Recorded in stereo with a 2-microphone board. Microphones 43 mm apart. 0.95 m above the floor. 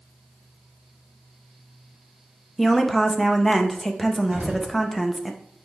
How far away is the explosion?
About 1.5 m.